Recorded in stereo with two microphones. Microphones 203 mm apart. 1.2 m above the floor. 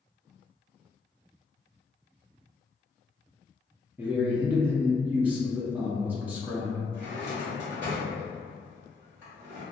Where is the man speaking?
10° right (ahead or behind), 0.5 m.